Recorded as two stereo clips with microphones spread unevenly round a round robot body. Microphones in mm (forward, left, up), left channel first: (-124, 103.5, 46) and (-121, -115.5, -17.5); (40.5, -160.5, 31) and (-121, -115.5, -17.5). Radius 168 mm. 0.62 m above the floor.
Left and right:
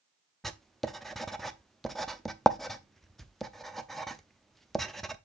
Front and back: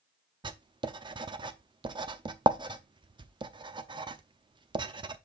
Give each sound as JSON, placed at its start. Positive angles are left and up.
{"t": 0.4, "sound": "writing", "azimuth_deg": -165, "distance_m": 0.7}